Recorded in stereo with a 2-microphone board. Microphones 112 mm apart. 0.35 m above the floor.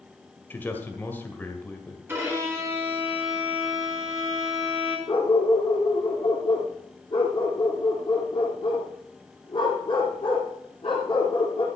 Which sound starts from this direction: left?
A dog barking, at 5.1 s.